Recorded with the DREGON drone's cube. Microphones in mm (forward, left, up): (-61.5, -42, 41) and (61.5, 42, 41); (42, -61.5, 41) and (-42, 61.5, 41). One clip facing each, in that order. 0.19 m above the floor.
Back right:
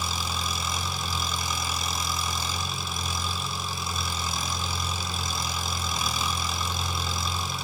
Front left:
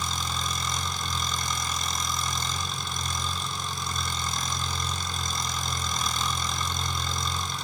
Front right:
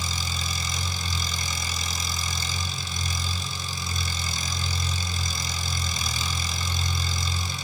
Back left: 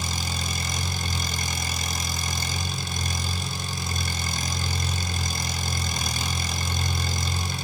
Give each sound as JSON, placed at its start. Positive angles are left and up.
{"t": 0.0, "sound": "an engine running", "azimuth_deg": 130, "distance_m": 2.0}